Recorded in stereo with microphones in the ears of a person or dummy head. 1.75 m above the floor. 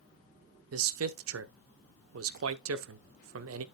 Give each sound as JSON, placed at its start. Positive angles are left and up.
{"t": 0.7, "sound": "a man speaking", "side_deg": -80, "distance_m": 0.9}